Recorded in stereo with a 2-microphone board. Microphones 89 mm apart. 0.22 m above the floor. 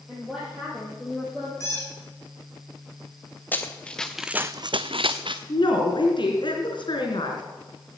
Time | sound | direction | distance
0.1 | a woman speaking | 5° right (ahead or behind) | 6 m
1.6 | a squeak | 30° left (ahead or behind) | 8.5 m
3.5 | running footsteps | 20° left (ahead or behind) | 1.6 m
5.5 | a woman speaking | 65° left (ahead or behind) | 3 m